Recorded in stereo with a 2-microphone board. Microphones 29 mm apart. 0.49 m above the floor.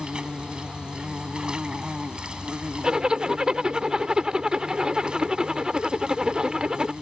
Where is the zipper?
25° right (ahead or behind).